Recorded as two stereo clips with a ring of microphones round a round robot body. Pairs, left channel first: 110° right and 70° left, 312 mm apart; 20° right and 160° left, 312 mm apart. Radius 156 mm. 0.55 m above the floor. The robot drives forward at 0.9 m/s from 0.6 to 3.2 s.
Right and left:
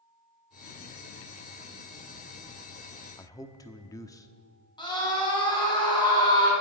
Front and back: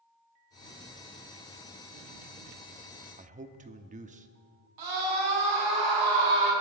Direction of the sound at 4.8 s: 170° left.